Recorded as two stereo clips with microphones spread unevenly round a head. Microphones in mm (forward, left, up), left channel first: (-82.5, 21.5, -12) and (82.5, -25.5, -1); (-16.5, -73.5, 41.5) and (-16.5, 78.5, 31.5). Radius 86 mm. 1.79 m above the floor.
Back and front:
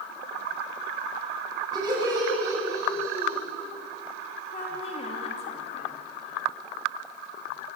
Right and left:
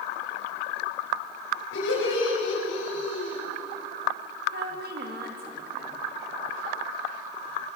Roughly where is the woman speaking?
Left.